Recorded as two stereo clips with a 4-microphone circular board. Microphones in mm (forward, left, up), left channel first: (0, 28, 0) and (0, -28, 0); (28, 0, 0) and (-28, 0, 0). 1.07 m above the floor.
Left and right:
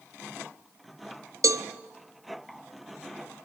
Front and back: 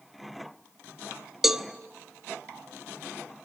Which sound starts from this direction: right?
A cowbell, at 1.4 s.